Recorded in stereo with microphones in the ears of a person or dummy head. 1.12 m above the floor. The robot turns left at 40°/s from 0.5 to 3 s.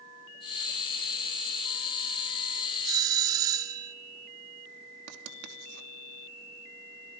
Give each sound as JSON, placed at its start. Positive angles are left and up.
{"t": 2.9, "sound": "a doorbell", "side_deg": -20, "distance_m": 1.5}
{"t": 5.1, "sound": "writing", "side_deg": -60, "distance_m": 3.0}